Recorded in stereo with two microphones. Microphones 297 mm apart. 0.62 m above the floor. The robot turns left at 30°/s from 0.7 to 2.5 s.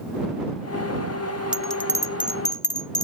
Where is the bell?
5° right (ahead or behind); by 3.0 s 25° left (ahead or behind).